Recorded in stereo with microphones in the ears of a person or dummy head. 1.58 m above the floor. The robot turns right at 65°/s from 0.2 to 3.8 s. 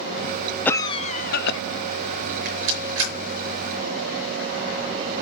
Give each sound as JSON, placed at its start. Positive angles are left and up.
{"t": 0.7, "sound": "a cough", "azimuth_deg": 0, "distance_m": 0.7}
{"t": 2.5, "sound": "a rattle", "side_deg": -45, "distance_m": 5.5}